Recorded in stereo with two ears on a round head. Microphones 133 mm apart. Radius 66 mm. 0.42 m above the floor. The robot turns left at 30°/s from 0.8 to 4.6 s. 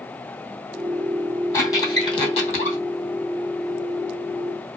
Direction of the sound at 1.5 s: 20° left (ahead or behind).